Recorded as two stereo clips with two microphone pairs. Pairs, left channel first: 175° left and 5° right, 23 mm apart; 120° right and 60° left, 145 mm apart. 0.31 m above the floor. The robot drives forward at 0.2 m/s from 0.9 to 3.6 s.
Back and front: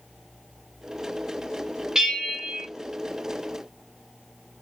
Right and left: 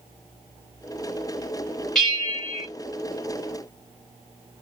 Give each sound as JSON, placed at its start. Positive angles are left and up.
{"t": 1.9, "sound": "a bell", "azimuth_deg": -35, "distance_m": 1.5}